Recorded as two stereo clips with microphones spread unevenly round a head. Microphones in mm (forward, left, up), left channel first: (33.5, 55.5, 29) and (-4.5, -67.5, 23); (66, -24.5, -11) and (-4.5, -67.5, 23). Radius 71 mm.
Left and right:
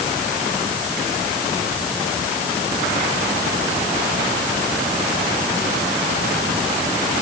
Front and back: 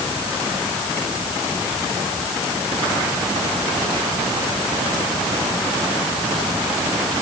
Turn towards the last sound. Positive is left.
No sound to turn to.